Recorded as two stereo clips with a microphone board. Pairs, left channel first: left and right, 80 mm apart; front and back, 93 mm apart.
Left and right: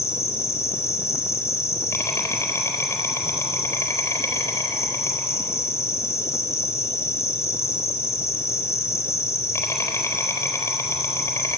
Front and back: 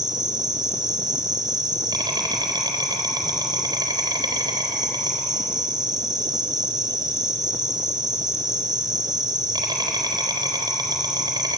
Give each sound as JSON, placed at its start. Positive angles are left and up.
{"t": 0.0, "sound": "an insect", "azimuth_deg": 145, "distance_m": 4.0}